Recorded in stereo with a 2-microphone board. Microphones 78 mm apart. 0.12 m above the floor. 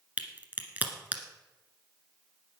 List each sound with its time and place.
0.2 s a crack: 20° right (ahead or behind), 1.5 m